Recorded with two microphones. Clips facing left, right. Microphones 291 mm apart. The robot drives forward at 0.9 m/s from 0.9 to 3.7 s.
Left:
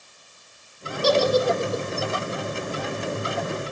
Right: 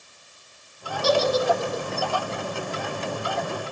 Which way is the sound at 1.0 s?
40° left (ahead or behind).